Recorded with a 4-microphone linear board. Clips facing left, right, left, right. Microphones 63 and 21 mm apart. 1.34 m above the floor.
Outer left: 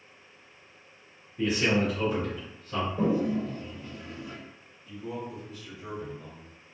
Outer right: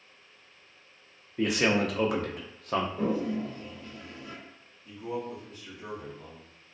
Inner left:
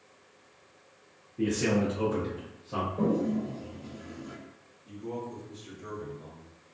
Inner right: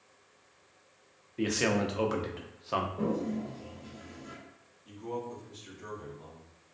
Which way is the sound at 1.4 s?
65° right (ahead or behind).